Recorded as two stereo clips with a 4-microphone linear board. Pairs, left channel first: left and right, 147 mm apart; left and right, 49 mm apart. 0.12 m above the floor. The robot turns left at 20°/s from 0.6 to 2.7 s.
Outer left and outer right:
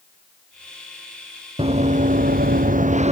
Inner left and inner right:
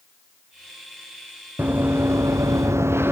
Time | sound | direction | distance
1.6 | running footsteps | 40° right (ahead or behind) | 1.3 m